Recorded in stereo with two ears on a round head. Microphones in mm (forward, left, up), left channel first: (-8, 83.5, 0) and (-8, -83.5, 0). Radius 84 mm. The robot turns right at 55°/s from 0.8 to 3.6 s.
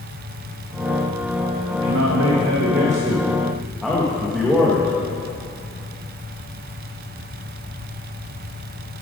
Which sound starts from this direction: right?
A man speaking, at 1.7 s.